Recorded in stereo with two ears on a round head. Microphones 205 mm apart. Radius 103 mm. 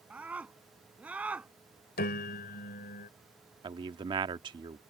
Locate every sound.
0.1 s a scream: 5° right (ahead or behind)
2.0 s a piano: 45° left (ahead or behind)
3.6 s a man speaking: 20° right (ahead or behind)